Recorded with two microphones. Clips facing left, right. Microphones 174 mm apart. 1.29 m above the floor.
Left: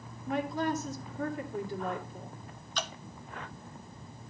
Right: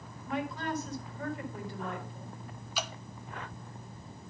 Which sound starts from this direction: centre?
Dripping, at 2.8 s.